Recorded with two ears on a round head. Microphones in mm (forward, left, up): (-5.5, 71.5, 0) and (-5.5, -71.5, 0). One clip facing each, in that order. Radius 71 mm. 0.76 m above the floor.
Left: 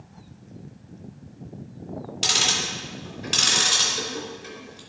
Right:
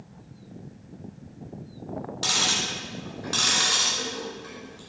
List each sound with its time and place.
2.2 s ticking: 30° left (ahead or behind), 2.5 m